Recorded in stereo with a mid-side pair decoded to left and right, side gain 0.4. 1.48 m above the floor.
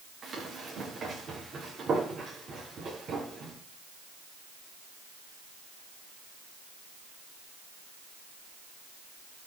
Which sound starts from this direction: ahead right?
Running footsteps, at 0.2 s.